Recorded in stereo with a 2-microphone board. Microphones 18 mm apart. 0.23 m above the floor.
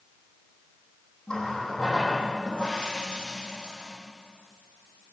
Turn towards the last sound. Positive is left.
turn(degrees=40)  # may be behind; listen again after turning